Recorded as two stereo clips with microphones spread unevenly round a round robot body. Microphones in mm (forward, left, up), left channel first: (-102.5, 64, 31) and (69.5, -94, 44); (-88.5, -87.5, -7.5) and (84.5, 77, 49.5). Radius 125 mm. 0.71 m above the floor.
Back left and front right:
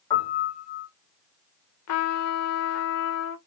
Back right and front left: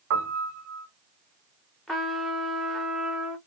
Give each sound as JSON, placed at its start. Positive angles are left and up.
{"t": 0.1, "sound": "a piano", "azimuth_deg": 60, "distance_m": 0.9}
{"t": 1.9, "sound": "a trumpet", "azimuth_deg": 140, "distance_m": 0.7}